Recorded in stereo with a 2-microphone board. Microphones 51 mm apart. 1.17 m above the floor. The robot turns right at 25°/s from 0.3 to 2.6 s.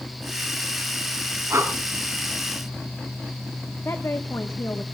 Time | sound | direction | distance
1.5 | breathing | 65° right (ahead or behind) | 3.5 m
3.9 | a woman speaking | 60° left (ahead or behind) | 1.0 m